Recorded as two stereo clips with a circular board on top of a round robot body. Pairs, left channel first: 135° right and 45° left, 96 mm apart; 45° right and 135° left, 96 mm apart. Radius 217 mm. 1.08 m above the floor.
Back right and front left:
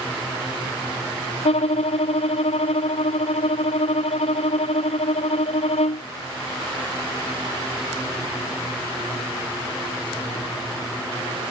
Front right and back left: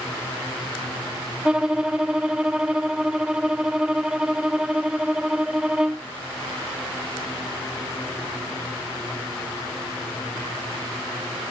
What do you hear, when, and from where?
1.4 s a violin: 140° right